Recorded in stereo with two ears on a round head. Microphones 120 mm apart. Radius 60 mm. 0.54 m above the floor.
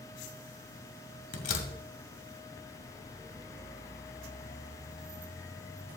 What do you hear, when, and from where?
1.3 s a door slam: 60° left (ahead or behind), 1.8 m